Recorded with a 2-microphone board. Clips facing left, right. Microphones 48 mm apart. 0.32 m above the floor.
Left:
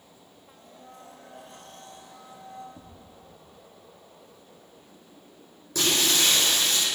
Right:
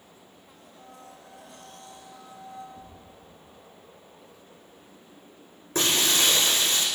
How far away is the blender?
About 8 m.